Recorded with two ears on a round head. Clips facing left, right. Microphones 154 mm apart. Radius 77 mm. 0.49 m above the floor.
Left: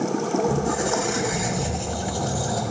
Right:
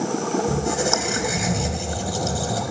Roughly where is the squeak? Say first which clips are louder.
Even; right.